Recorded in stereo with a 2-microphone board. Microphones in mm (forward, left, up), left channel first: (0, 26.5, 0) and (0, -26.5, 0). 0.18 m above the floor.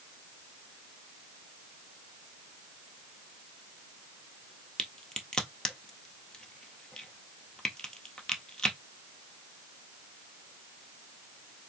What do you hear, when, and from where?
4.8 s a crack: 15° left (ahead or behind), 1.1 m